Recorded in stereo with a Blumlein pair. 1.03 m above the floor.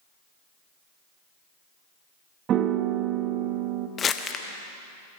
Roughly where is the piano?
Ahead right.